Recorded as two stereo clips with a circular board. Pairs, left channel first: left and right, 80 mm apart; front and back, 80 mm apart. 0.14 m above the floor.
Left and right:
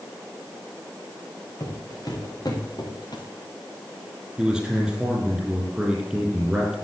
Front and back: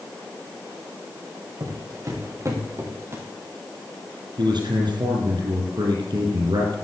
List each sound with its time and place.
1.6 s footsteps: 135° left, 3.5 m; by 3.2 s 120° left, 3 m
4.4 s a man speaking: 170° right, 4 m